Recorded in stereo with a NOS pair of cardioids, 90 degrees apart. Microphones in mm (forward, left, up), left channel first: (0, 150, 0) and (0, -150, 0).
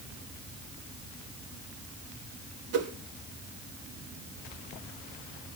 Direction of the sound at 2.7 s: 55° right.